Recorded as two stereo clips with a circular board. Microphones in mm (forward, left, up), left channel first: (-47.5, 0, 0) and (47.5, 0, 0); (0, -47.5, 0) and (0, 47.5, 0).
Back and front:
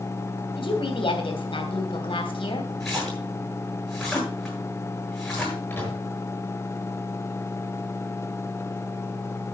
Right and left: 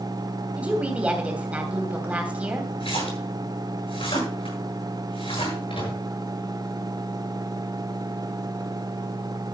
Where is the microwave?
110° right, 6 m.